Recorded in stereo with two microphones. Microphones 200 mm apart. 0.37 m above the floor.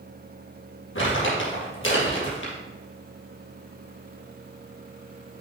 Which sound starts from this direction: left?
Crumpling, at 0.9 s.